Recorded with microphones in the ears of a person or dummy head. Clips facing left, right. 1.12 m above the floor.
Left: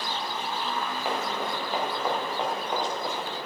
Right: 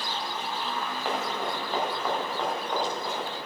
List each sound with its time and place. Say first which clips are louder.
1.1 s running footsteps: right 1 dB; centre (ahead or behind), 5.5 m; by 3.3 s 15° left (ahead or behind), 7.5 m